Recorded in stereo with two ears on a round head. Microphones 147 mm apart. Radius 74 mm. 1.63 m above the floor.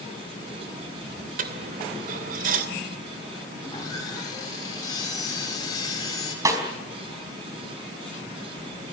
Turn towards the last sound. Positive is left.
turn(degrees=-20)  # may be behind; listen again after turning